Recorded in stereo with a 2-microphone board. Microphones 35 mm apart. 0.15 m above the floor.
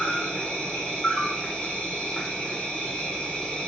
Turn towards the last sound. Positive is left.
turn(degrees=25)  # may be behind; listen again after turning